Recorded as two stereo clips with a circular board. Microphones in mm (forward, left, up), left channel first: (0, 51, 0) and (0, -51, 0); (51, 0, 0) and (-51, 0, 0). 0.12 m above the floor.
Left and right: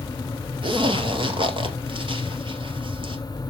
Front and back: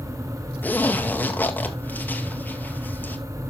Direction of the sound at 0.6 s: 70° right.